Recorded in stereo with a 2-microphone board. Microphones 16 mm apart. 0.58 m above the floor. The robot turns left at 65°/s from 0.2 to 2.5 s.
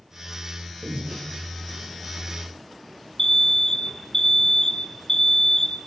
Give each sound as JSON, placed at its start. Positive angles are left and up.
{"t": 0.8, "sound": "breathing", "side_deg": -50, "distance_m": 8.5}
{"t": 3.2, "sound": "an alarm", "side_deg": 25, "distance_m": 1.9}